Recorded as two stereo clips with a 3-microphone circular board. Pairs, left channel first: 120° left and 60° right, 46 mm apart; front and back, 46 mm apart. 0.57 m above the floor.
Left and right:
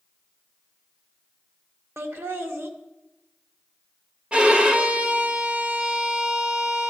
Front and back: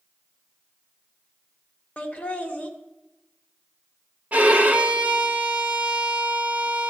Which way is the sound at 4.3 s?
125° right.